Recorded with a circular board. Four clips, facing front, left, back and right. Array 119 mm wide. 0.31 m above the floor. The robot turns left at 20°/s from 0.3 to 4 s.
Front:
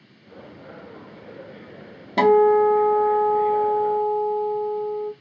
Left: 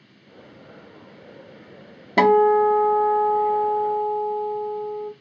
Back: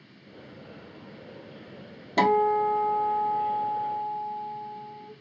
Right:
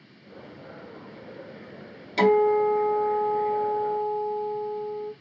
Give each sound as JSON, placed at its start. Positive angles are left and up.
{"t": 2.2, "sound": "a guitar", "azimuth_deg": 80, "distance_m": 0.5}